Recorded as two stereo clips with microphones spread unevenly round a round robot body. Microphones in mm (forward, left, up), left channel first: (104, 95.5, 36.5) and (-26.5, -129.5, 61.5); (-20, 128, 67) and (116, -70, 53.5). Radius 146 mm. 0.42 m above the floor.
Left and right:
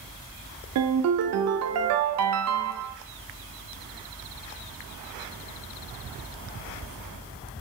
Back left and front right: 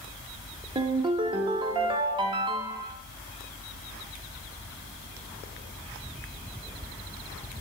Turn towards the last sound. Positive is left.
turn(degrees=-120)